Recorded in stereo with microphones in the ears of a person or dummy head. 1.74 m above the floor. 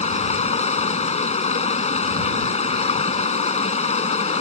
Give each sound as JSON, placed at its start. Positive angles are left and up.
{"t": 0.0, "sound": "running water", "side_deg": 40}